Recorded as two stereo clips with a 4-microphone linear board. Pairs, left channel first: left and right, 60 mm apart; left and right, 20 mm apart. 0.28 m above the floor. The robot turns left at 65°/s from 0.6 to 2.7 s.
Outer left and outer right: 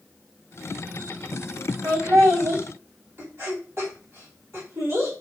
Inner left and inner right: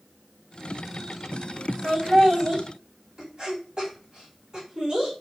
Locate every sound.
1.8 s laughter: 40° right (ahead or behind), 2 m; by 5.1 s 45° right (ahead or behind), 2 m